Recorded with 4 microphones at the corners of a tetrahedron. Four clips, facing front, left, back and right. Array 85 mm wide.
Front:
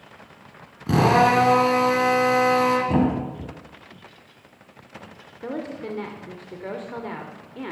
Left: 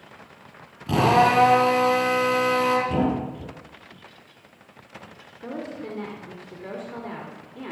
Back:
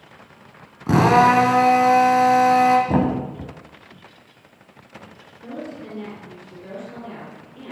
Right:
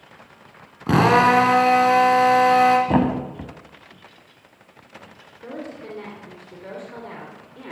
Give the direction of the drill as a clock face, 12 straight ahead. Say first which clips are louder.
Right 3 dB, back 3 dB; 4 o'clock.